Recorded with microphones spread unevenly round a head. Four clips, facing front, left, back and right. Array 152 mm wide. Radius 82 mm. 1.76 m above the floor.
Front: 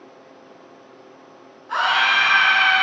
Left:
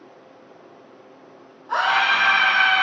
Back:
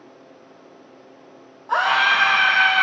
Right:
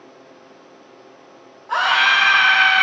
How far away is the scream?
About 1.8 m.